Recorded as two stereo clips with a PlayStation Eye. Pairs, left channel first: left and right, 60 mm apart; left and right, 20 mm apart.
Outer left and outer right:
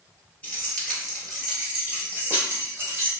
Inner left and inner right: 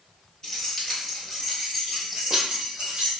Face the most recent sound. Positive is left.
turn(degrees=-45)  # may be behind; listen again after turning